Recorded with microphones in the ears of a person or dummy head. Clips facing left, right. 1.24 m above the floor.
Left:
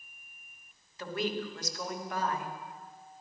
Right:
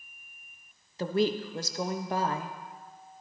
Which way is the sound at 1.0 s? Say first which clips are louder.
Right 7 dB; 35° right (ahead or behind).